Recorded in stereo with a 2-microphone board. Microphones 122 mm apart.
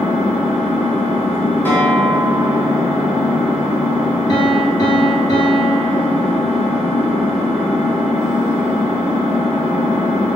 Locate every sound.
0.0 s an engine running: 10° right (ahead or behind), 1.2 m
1.6 s a guitar: 15° left (ahead or behind), 0.9 m
4.3 s a piano: 30° left (ahead or behind), 1.6 m